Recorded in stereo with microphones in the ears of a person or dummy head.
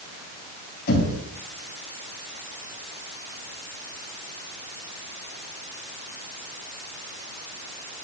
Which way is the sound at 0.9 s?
60° left (ahead or behind).